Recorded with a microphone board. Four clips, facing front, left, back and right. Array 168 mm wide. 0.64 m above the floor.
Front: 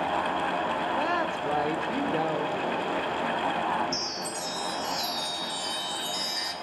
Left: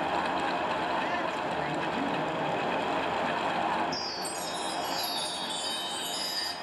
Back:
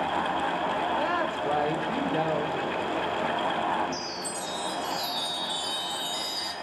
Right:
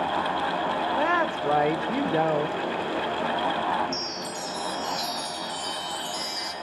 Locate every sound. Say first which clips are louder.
1.0 s a woman speaking: right 6 dB, even; 85° right, 2.5 m
3.9 s a chime: right 2 dB, even; 40° right, 3.5 m